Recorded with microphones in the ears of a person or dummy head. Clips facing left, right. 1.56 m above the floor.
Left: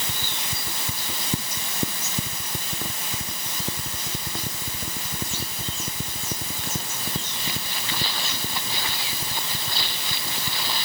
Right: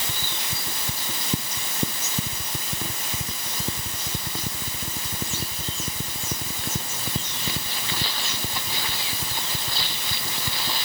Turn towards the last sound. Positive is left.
No sound to turn to.